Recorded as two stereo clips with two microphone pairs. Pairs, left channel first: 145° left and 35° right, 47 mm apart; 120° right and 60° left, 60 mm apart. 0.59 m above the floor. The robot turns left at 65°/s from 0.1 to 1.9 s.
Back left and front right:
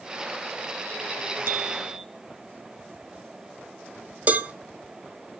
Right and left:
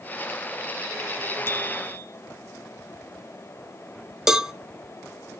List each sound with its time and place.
1.5 s a bicycle bell: 70° right, 4 m; by 2.0 s 100° right, 4 m
4.3 s a cowbell: 15° right, 1.0 m